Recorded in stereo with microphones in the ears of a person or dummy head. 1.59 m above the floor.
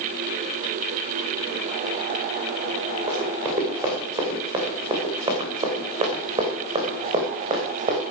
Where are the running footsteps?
15° right (ahead or behind), 7.5 m; by 8.0 s 25° right (ahead or behind), 5 m.